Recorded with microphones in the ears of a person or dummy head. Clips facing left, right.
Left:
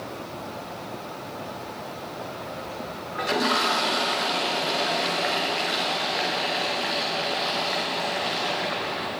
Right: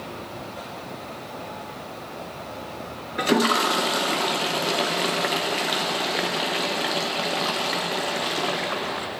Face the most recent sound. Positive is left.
turn(degrees=-45)  # may be behind; listen again after turning